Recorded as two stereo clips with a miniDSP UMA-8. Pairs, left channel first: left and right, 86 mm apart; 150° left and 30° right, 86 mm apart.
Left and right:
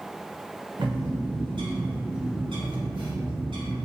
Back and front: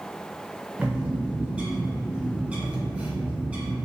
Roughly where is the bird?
Right.